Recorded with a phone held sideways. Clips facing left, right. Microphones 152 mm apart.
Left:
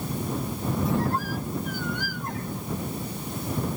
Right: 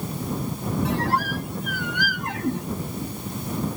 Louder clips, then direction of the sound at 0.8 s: Right 2 dB; 70° right (ahead or behind).